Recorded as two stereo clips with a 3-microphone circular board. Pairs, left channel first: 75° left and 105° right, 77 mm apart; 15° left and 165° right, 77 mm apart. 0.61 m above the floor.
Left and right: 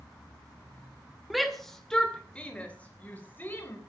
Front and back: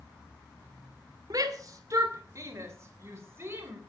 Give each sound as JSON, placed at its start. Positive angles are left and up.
{"t": 1.3, "sound": "a shout", "azimuth_deg": 165, "distance_m": 2.5}